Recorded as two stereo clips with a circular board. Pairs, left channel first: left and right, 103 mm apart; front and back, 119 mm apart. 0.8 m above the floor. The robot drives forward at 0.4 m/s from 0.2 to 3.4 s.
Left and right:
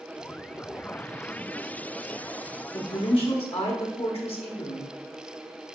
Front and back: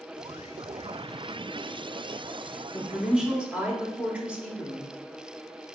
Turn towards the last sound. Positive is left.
turn(degrees=100)